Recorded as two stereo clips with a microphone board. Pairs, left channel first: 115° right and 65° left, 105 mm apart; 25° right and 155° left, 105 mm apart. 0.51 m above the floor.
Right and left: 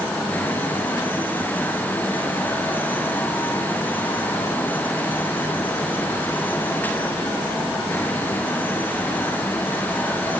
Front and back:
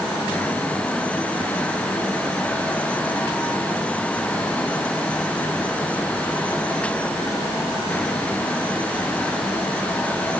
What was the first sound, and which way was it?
Only background noise.